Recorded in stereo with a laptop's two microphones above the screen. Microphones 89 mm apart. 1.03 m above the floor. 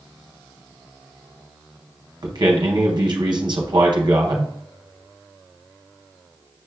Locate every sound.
2.2 s a man speaking: 55° right (ahead or behind), 0.7 m